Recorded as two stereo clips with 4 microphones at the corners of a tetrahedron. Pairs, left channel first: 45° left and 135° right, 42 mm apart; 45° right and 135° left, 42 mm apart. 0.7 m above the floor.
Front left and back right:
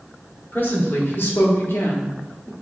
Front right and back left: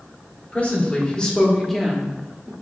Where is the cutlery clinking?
No cutlery clinking in this recording.